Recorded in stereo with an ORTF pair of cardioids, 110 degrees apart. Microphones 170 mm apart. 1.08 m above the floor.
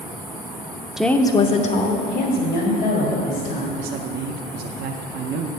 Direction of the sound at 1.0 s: 5° right.